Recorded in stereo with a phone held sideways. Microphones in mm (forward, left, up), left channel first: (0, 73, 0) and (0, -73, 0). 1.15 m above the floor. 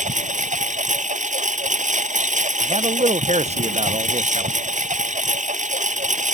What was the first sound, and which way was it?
A lawn mower, 55° right (ahead or behind).